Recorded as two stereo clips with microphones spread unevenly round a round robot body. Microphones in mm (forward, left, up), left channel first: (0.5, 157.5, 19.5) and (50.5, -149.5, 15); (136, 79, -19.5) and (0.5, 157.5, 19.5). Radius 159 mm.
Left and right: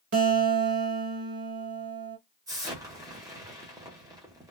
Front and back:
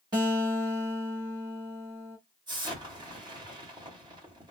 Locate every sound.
0.1 s a guitar: 130° right, 1.0 m
2.5 s an explosion: 145° right, 1.1 m